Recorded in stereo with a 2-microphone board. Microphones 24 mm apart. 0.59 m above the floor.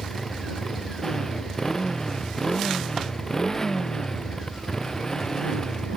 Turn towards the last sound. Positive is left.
turn(degrees=30)  # may be behind; listen again after turning